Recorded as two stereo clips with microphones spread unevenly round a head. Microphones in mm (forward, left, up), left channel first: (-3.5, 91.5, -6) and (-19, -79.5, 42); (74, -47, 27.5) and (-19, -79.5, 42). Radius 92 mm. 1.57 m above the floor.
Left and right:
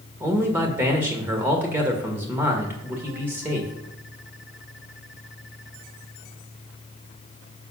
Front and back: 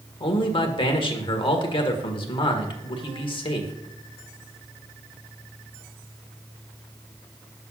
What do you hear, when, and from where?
0.2 s a man speaking: 20° right, 1.6 m